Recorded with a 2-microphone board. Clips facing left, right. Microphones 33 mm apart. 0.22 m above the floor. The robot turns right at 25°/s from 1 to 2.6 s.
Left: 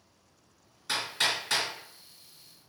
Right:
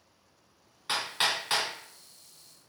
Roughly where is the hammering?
Right.